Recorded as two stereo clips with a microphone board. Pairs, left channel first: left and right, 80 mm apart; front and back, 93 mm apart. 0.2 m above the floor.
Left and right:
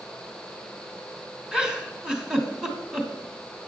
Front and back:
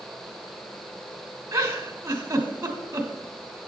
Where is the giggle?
165° right, 1.1 m.